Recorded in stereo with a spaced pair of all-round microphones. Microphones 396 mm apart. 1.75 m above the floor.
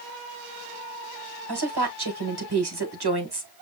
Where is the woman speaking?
75° right (ahead or behind), 1.6 m.